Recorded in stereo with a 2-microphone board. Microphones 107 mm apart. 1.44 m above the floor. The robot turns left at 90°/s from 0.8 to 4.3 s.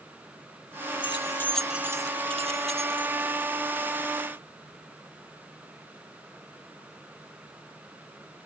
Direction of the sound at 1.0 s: 55° left (ahead or behind).